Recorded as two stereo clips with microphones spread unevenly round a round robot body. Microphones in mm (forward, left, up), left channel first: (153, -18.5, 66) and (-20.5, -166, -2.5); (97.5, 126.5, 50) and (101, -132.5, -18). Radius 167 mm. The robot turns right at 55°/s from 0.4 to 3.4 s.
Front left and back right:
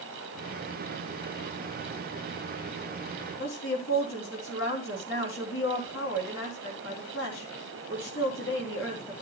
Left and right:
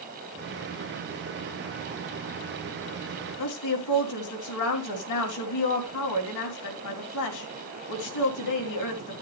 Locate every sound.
3.4 s a woman speaking: 95° left, 3 m